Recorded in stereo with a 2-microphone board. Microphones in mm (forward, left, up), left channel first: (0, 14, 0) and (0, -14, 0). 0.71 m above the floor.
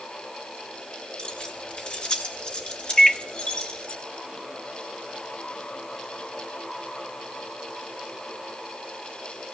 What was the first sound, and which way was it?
Keys jangling, 40° left (ahead or behind).